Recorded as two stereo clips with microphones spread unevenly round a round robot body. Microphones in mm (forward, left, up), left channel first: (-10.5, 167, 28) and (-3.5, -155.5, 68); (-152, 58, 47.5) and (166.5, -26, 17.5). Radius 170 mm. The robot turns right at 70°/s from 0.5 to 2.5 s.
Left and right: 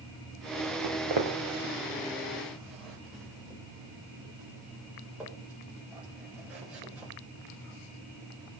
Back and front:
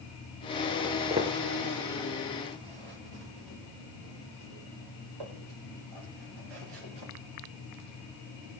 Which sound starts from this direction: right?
Footsteps, at 0.8 s.